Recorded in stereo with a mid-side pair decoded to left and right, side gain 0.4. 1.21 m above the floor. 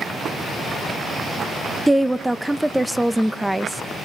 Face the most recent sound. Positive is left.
turn(degrees=-5)